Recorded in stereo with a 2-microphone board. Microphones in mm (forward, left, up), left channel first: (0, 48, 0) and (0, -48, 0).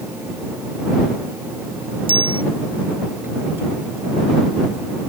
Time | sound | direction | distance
2.1 | a bicycle bell | 65° right (ahead or behind) | ?